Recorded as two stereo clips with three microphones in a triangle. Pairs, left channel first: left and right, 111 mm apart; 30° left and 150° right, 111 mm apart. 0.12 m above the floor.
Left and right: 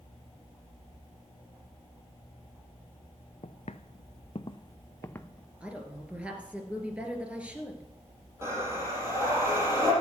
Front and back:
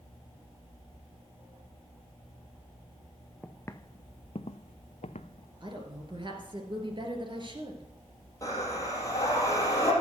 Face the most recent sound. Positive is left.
turn(degrees=-30)